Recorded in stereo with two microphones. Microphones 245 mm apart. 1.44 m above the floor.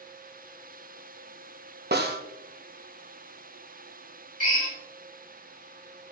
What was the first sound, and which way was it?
A snare drum, 45° right (ahead or behind).